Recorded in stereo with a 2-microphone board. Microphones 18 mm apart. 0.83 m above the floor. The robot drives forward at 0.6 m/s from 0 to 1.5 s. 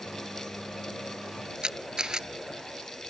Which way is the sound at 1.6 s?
45° right (ahead or behind).